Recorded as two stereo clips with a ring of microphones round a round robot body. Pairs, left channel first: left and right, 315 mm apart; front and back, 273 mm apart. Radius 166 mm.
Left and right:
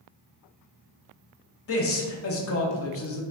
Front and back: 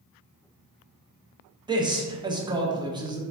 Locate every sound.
1.7 s a man speaking: 110° left, 0.7 m